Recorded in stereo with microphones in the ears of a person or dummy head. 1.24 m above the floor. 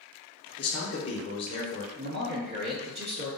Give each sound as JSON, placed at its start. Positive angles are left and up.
{"t": 0.6, "sound": "a man speaking", "side_deg": 30, "distance_m": 0.7}
{"t": 1.9, "sound": "a man speaking", "side_deg": -60, "distance_m": 1.5}